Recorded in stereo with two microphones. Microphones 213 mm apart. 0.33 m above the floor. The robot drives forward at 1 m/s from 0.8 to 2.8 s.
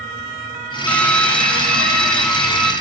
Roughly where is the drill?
Centre.